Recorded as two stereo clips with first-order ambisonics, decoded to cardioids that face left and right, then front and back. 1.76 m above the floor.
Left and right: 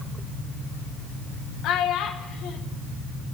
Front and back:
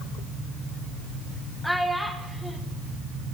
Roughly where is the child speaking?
Left.